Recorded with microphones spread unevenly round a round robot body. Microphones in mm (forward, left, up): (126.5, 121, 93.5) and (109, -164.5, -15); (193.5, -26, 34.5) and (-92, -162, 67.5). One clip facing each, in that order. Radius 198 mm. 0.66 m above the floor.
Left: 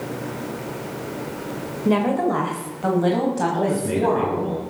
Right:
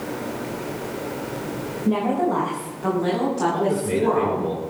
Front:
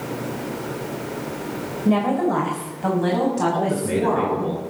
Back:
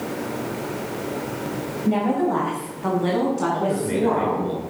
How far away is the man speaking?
About 10 m.